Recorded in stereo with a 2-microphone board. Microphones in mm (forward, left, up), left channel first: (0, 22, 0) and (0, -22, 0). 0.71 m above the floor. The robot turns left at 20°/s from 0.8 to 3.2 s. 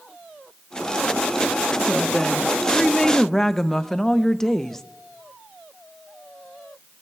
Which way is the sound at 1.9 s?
Centre (ahead or behind).